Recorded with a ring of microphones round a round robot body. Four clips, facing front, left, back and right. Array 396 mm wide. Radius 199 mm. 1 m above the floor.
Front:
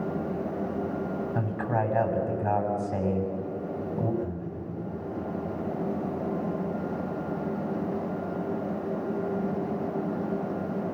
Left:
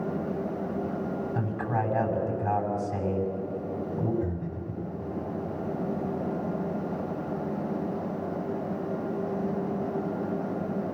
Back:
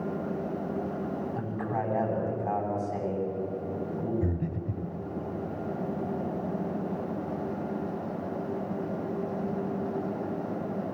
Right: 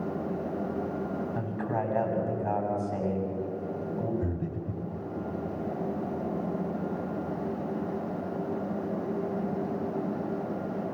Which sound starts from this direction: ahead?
A man speaking, at 1.4 s.